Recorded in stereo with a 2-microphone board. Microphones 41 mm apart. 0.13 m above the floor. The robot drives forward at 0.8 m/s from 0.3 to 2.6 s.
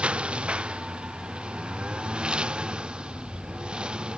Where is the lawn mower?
25° right (ahead or behind); by 4.2 s 20° right (ahead or behind).